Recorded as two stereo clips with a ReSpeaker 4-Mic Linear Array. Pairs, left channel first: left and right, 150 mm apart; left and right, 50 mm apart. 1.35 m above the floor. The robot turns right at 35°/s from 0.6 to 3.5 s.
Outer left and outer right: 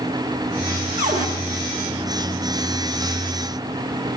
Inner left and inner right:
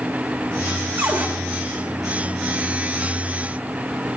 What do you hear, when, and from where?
1.0 s a cupboard door: 60° right (ahead or behind), 1.5 m; by 1.3 s 55° right (ahead or behind), 1.5 m